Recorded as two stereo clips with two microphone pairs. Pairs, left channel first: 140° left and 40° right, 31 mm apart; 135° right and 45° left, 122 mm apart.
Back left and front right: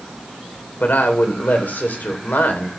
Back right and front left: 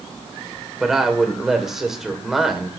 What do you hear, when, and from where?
0.8 s a woman speaking: 130° left, 2.5 m